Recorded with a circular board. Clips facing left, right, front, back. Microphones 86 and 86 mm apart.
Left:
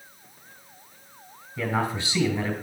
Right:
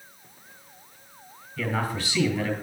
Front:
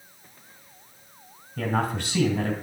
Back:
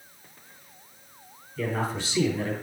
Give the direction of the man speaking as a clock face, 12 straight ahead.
11 o'clock.